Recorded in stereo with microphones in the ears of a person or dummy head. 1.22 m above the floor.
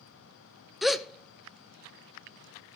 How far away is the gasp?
About 0.6 m.